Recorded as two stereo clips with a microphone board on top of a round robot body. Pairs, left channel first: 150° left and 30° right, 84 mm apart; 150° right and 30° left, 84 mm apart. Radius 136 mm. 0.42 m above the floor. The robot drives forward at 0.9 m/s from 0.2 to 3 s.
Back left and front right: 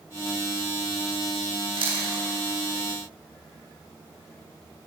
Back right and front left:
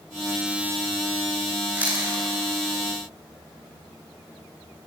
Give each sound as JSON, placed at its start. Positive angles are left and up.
{"t": 1.8, "sound": "chewing", "azimuth_deg": -40, "distance_m": 8.5}